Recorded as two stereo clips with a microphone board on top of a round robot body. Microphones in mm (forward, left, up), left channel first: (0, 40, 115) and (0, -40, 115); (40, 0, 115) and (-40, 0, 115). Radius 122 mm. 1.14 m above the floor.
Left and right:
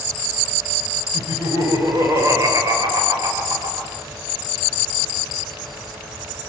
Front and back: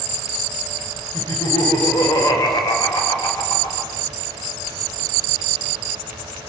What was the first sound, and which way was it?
Laughter, 40° right.